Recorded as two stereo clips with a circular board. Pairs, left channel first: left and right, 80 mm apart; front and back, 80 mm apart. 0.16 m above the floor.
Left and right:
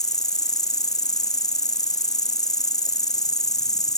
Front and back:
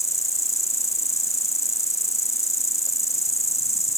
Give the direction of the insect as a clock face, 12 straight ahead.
10 o'clock.